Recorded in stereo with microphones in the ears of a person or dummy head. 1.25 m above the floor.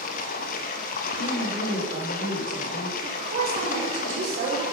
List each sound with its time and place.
0.0 s running water: 50° left (ahead or behind), 0.8 m
1.2 s a woman speaking: 55° right (ahead or behind), 3.5 m
3.0 s a woman speaking: 40° right (ahead or behind), 3.5 m